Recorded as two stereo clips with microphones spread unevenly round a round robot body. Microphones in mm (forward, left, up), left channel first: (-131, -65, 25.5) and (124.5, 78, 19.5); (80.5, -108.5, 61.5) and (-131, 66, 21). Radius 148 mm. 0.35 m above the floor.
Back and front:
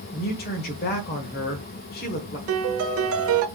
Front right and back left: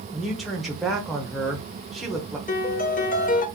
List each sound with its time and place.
0.1 s a man speaking: 145° right, 1.1 m
2.5 s a piano: 20° left, 0.7 m